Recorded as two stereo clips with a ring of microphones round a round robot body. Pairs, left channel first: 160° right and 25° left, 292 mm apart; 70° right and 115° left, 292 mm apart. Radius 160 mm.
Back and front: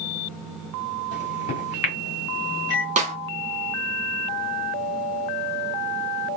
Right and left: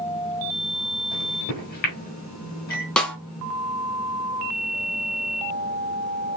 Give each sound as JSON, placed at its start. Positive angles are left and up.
{"t": 1.1, "sound": "a microwave", "azimuth_deg": -125, "distance_m": 1.7}
{"t": 3.0, "sound": "a snare drum", "azimuth_deg": 15, "distance_m": 1.0}